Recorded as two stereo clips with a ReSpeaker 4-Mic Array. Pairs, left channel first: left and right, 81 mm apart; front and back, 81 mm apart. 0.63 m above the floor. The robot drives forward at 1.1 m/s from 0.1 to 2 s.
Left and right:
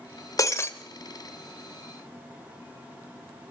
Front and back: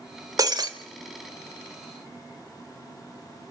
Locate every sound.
0.4 s breaking glass: 135° left, 0.9 m; by 0.7 s 150° left, 1.2 m